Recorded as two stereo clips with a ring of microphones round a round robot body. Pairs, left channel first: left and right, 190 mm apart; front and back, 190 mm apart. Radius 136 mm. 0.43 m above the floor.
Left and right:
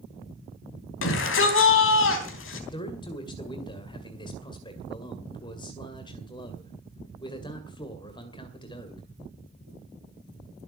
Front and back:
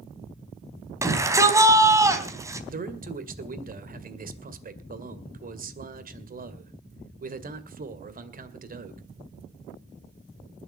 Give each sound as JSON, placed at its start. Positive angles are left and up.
{"t": 1.0, "sound": "a shout", "azimuth_deg": 105, "distance_m": 4.0}
{"t": 2.7, "sound": "a man speaking", "azimuth_deg": 155, "distance_m": 2.0}